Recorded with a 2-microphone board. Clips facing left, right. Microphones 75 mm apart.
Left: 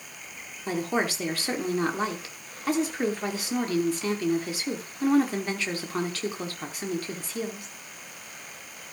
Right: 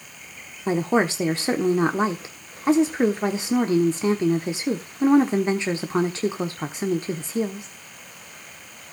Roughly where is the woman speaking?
Right.